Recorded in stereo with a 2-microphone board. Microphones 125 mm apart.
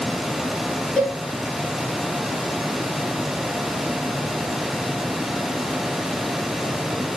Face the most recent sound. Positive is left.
turn(degrees=15)  # may be behind; listen again after turning